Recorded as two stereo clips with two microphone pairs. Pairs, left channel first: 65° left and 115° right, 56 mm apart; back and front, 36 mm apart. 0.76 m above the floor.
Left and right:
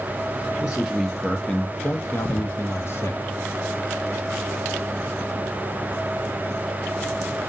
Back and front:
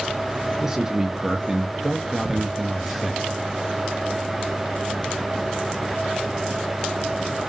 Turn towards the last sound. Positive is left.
turn(degrees=90)